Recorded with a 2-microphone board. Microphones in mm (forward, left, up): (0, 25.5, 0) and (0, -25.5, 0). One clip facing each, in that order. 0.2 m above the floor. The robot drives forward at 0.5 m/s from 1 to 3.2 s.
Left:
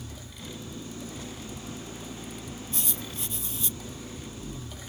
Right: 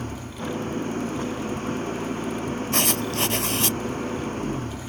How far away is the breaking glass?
I don't hear breaking glass.